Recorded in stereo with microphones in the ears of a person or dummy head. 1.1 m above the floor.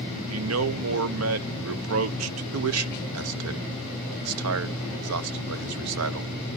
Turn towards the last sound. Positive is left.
turn(degrees=-80)